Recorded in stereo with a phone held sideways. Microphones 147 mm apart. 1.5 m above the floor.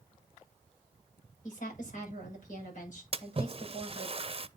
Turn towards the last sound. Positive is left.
turn(degrees=-40)  # may be behind; listen again after turning